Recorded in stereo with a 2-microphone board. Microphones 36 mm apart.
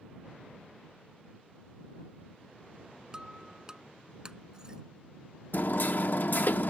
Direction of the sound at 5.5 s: 60° left (ahead or behind).